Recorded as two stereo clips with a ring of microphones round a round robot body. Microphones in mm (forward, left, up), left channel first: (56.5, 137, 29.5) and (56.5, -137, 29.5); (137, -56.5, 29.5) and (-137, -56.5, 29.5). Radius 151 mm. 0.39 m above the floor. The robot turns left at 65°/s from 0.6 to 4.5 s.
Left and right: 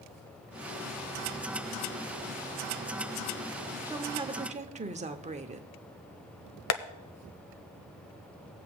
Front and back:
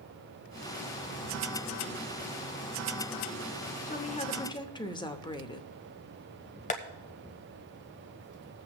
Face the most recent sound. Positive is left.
turn(degrees=65)